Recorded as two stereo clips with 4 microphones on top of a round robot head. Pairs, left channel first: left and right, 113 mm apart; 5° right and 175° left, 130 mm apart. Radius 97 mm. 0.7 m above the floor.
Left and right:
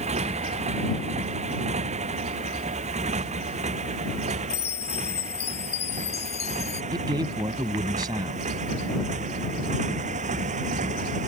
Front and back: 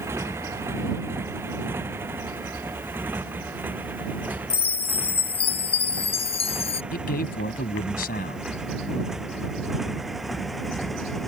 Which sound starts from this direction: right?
A motorcycle, at 0.0 s.